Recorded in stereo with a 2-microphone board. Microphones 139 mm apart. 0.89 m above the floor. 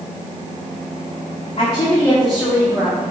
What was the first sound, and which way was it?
A woman speaking, 35° left (ahead or behind).